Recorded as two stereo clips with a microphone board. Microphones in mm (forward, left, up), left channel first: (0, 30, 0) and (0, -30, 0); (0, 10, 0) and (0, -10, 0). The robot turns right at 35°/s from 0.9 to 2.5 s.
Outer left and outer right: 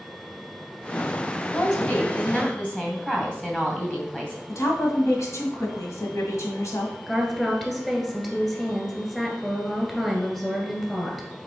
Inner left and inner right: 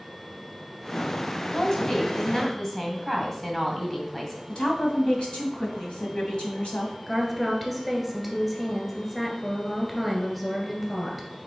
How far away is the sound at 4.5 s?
About 2.0 m.